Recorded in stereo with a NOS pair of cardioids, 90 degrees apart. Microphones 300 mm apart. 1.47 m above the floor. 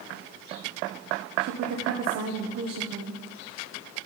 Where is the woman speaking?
60° right, 1.1 m.